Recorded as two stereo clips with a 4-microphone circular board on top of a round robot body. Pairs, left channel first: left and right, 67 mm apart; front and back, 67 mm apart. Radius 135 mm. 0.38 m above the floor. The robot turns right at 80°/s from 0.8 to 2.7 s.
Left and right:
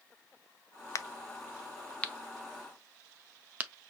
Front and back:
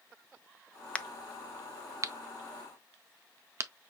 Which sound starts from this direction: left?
A crack, at 0.9 s.